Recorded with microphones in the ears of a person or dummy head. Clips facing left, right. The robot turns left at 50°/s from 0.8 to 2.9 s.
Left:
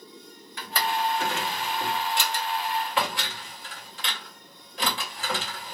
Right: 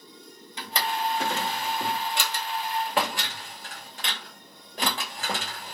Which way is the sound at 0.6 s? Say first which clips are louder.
Left 2 dB; 20° right (ahead or behind).